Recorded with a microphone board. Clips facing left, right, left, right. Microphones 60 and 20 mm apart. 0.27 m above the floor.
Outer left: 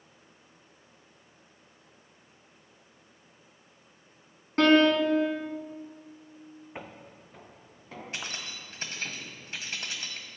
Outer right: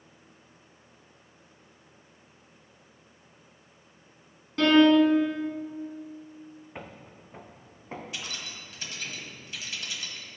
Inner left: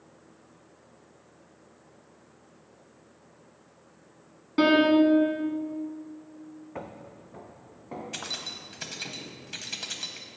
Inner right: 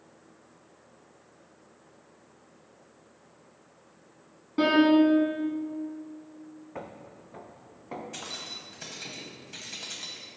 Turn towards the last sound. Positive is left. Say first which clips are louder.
# outer left 1 dB, inner left 6 dB
turn(degrees=40)  # may be behind; listen again after turning